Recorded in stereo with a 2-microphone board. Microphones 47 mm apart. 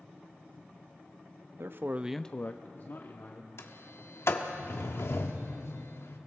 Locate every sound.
1.6 s a man speaking: 60° right (ahead or behind), 0.9 m; by 3.5 s 65° left (ahead or behind), 2 m
3.6 s a sliding door: 75° left (ahead or behind), 1.3 m